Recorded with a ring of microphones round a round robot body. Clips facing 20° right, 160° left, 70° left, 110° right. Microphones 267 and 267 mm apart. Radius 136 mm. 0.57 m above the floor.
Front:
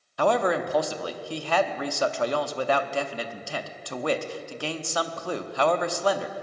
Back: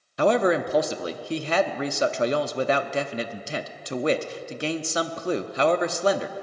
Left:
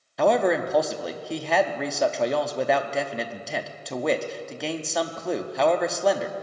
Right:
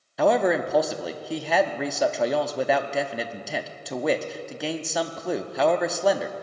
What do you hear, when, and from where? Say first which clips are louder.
0.2 s a man speaking: back 3 dB, even; 160° left, 0.6 m